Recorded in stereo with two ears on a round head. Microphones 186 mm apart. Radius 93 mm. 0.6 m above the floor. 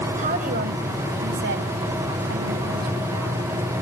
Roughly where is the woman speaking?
Right.